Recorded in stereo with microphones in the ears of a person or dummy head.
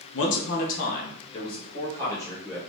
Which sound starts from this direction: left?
A man speaking, at 0.1 s.